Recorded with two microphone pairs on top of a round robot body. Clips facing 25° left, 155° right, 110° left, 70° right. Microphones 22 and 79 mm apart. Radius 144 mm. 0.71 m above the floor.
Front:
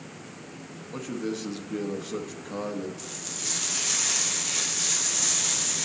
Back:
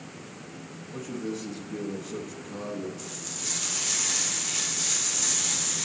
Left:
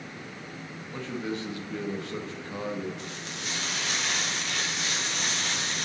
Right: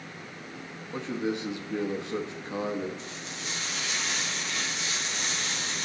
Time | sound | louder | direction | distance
0.9 | a man speaking | front 2 dB, right 3 dB | 15° right | 1.2 m
3.0 | frying | front 1 dB, left 1 dB | 90° left | 1.4 m